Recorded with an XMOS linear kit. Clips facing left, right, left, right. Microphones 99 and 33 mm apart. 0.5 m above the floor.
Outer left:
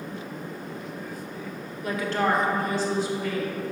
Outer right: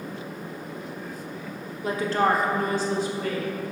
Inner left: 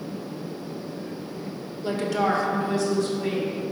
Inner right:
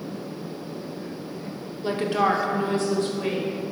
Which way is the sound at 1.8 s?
25° right (ahead or behind).